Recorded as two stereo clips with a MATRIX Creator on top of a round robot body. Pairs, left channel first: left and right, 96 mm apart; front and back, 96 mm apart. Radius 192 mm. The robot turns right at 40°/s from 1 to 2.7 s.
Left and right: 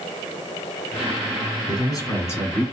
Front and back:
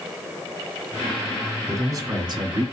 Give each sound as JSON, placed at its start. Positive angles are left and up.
{"t": 1.7, "sound": "a man speaking", "azimuth_deg": 120, "distance_m": 1.8}